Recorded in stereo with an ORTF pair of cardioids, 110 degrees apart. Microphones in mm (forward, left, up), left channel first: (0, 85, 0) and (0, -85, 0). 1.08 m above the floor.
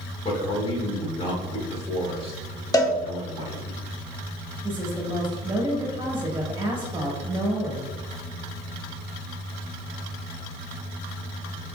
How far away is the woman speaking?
About 1.5 m.